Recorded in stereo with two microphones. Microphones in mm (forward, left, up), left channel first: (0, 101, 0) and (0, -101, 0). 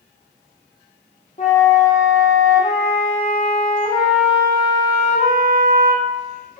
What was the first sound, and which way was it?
A flute, 35° left (ahead or behind).